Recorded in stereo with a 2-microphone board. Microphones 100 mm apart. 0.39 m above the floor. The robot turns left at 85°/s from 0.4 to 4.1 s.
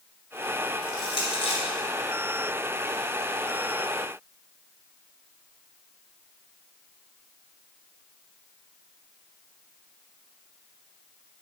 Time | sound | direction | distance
0.8 | crushing | 20° left (ahead or behind) | 3 m